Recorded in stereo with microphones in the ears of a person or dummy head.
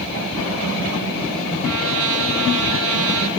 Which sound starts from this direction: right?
A trumpet, at 1.6 s.